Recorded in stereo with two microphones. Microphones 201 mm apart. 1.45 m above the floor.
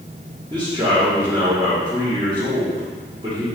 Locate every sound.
0.5 s a man speaking: 20° right (ahead or behind), 1.1 m